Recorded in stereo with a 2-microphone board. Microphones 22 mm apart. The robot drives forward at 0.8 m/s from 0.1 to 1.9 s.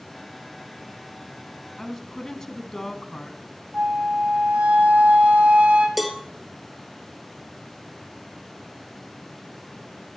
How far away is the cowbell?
About 1.3 m.